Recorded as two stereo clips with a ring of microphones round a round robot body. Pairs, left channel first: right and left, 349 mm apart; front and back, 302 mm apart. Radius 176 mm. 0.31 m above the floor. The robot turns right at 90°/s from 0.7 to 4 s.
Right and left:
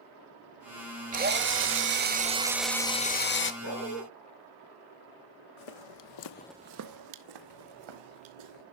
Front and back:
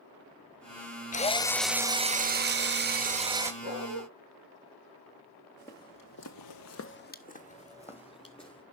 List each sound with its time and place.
1.1 s a drill: 40° left, 1.0 m; by 3.5 s 105° right, 1.0 m
3.6 s a dog barking: 45° right, 2 m; by 4.0 s 10° right, 2 m
5.6 s footsteps: 85° right, 1.5 m; by 8.6 s 75° left, 3.5 m